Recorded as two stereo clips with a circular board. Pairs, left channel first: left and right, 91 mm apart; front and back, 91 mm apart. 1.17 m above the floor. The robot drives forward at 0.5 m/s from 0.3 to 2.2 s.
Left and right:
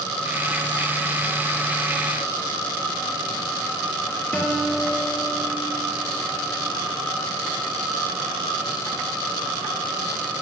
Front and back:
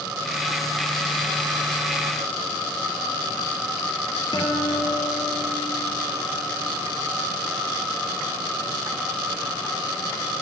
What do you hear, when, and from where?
4.3 s a guitar: 20° left, 2.5 m